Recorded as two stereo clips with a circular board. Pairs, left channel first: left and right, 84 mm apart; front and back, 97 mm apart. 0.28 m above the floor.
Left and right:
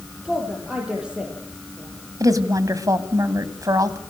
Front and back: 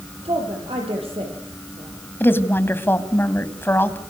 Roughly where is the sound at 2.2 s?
Ahead right.